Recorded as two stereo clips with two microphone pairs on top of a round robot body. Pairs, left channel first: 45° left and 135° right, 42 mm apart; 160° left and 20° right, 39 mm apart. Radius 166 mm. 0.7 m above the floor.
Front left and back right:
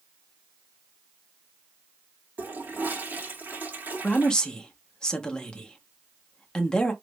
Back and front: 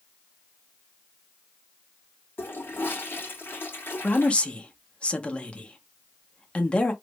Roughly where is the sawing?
I don't hear sawing.